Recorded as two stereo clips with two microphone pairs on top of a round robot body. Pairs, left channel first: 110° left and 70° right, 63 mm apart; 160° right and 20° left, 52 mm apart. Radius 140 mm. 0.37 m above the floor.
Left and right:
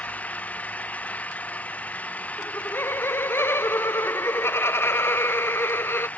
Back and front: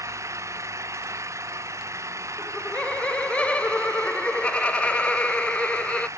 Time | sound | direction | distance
0.0 | an engine running | 40° left | ?
2.4 | laughter | 140° left | ?